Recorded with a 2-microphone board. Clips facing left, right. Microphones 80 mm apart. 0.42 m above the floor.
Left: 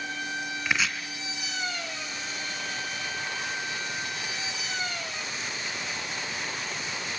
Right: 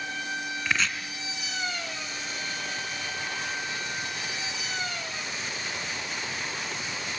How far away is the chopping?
About 2 m.